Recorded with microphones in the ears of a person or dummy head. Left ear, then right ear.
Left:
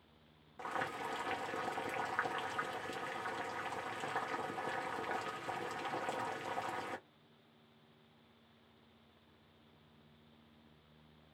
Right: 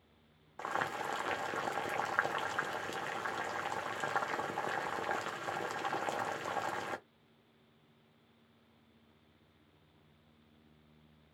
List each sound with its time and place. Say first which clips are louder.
0.6 s boiling: right 4 dB; 15° right (ahead or behind), 0.7 m